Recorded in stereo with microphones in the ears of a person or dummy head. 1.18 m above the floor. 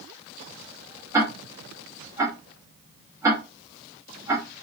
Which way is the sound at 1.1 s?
20° right (ahead or behind).